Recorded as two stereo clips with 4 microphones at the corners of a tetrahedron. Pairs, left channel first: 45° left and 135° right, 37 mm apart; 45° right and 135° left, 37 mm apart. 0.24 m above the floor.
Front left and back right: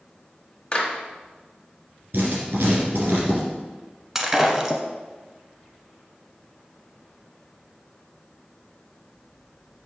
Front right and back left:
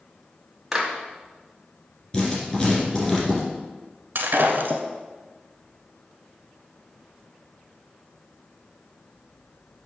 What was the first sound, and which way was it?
A clap, 60° left.